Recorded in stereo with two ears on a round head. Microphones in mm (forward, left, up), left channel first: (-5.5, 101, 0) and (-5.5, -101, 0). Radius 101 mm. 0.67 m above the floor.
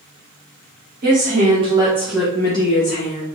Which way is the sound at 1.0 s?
40° right (ahead or behind).